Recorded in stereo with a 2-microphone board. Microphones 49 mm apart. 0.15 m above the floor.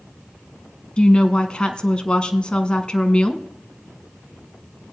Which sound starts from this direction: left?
A woman speaking, at 1.0 s.